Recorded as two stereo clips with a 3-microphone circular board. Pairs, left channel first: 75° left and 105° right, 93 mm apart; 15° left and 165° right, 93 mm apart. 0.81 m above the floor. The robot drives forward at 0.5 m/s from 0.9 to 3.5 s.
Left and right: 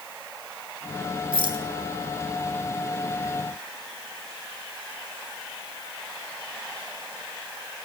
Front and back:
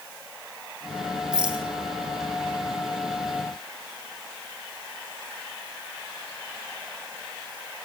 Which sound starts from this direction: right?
A rattle, at 1.3 s.